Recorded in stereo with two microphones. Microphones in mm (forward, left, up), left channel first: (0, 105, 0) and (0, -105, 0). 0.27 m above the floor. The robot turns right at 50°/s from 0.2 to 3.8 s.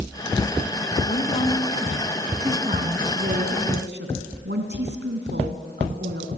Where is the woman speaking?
135° left, 2.5 m; by 6.4 s 90° right, 2.5 m.